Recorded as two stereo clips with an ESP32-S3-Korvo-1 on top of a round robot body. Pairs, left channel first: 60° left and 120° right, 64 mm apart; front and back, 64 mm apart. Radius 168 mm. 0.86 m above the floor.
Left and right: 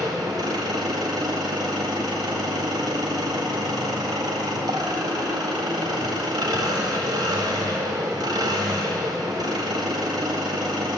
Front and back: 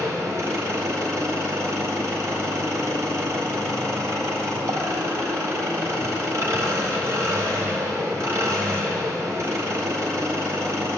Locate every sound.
0.0 s an engine running: 135° right, 1.7 m